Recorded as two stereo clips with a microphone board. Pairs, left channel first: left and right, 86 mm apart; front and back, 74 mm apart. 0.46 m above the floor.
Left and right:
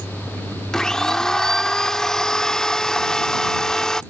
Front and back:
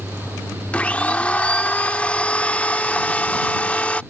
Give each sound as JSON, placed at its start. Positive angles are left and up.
{"t": 0.7, "sound": "a blender", "azimuth_deg": 25}